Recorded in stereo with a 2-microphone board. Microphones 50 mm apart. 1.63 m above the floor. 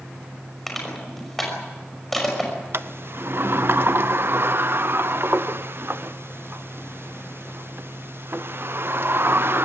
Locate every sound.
0.7 s crushing: 5° left (ahead or behind), 5.5 m
2.7 s a sliding door: 50° right (ahead or behind), 0.6 m